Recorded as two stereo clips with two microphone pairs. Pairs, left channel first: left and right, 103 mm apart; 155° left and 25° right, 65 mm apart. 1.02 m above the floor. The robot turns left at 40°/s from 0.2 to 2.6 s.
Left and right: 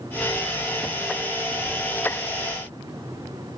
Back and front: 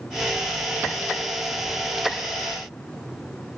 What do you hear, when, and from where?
Only background noise.